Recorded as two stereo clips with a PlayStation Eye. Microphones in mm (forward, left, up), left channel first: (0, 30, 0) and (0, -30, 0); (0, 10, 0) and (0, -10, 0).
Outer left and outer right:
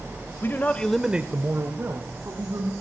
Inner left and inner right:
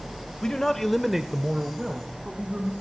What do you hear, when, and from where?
0.4 s a man speaking: 40° left (ahead or behind), 1.2 m; by 2.7 s 55° right (ahead or behind), 3 m